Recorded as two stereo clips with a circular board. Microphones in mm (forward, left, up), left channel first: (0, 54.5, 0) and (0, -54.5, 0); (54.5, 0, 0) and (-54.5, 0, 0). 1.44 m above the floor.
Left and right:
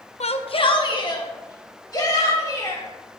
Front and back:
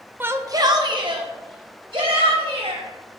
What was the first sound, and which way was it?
A shout, 105° left.